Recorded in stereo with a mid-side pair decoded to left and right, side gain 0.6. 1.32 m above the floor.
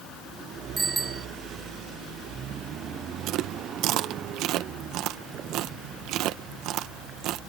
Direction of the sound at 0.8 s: 25° right.